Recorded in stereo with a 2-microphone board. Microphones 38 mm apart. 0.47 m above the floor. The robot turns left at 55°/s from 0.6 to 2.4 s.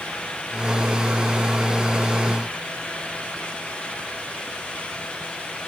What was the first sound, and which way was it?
Only background noise.